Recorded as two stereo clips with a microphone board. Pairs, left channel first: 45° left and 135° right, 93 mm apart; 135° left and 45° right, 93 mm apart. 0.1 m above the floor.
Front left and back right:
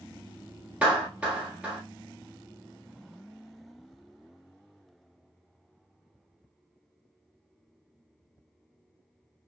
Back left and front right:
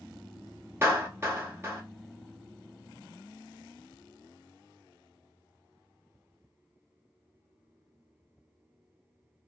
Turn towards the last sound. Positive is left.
turn(degrees=-75)